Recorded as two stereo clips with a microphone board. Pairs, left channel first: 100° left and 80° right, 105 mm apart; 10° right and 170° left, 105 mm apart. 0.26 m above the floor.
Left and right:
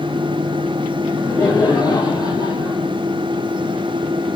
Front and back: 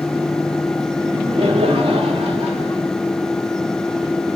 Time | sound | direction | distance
1.0 | laughter | 165° left | 3.5 m